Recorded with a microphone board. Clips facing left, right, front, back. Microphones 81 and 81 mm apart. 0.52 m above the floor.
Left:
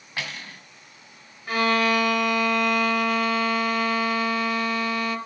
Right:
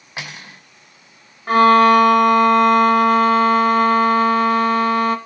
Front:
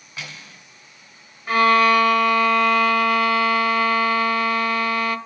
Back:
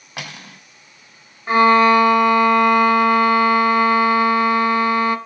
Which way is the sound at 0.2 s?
160° right.